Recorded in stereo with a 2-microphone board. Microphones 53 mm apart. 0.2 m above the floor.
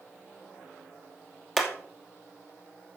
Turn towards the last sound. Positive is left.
turn(degrees=5)  # may be behind; listen again after turning